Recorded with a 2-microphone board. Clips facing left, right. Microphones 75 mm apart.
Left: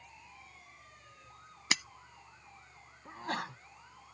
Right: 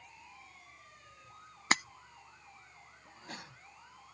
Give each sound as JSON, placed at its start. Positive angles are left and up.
{"t": 1.7, "sound": "breaking glass", "side_deg": -45}
{"t": 3.0, "sound": "a sneeze", "side_deg": 70}